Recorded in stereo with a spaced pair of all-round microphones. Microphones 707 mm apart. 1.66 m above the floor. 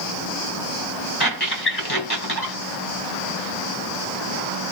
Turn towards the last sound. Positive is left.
turn(degrees=35)  # may be behind; listen again after turning